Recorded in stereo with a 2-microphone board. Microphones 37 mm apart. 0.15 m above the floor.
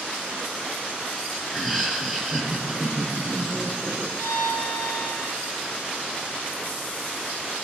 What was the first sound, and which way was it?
Laughter, centre (ahead or behind).